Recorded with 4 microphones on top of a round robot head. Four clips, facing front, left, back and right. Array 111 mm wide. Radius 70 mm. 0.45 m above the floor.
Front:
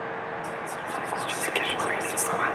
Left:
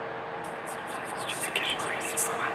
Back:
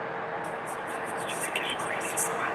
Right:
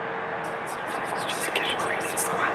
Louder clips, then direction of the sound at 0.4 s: Right 5 dB, front 1 dB; 45° right.